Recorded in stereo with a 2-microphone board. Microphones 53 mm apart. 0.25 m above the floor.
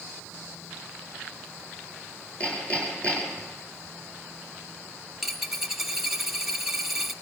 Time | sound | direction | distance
2.4 | hammering | 25° left (ahead or behind) | 4.5 m
5.2 | a dropped coin | 5° right (ahead or behind) | 1.0 m